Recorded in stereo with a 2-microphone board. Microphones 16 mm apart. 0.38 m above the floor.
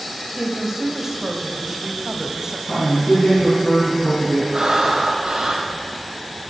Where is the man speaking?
40° left (ahead or behind), 5 m.